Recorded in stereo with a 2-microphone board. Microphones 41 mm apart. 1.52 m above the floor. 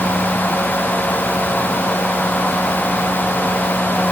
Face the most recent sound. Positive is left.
No sound to turn to.